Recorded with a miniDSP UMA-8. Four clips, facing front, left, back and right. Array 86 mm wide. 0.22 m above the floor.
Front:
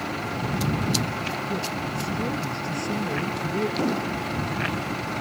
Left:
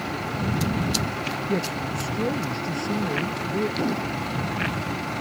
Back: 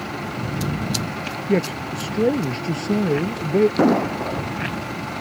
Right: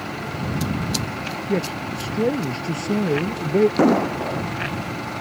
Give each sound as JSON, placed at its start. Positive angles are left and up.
{"t": 1.5, "sound": "a man speaking", "azimuth_deg": -165}
{"t": 3.8, "sound": "an explosion", "azimuth_deg": -130}